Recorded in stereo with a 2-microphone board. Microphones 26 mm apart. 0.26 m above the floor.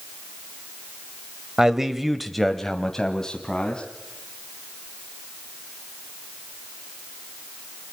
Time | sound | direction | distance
1.6 | a man speaking | 20° right (ahead or behind) | 1.2 m